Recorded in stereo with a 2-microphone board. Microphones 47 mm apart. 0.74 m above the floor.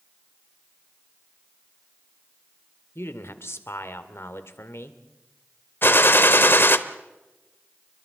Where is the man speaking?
65° left (ahead or behind), 1.8 m.